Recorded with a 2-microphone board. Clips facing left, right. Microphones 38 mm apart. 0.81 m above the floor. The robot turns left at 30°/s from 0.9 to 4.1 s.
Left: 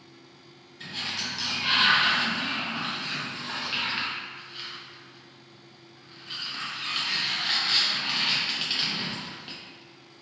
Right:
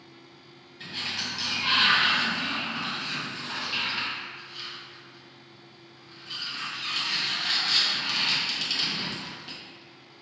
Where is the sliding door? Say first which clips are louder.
Even; 10° right (ahead or behind), 0.7 m; by 9.6 s 20° left (ahead or behind), 0.7 m.